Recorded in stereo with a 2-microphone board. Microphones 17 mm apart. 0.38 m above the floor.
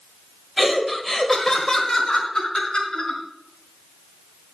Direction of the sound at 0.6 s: 5° right (ahead or behind).